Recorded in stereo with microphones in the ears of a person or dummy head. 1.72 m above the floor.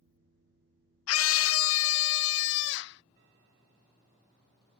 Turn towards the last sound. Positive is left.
turn(degrees=70)  # may be behind; listen again after turning